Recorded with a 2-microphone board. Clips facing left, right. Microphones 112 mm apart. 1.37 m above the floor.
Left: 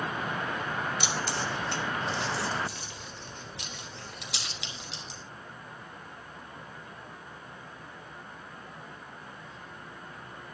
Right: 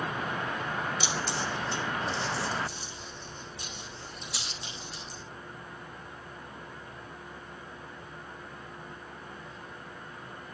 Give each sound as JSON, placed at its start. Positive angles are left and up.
{"t": 1.0, "sound": "keys jangling", "side_deg": 55, "distance_m": 3.5}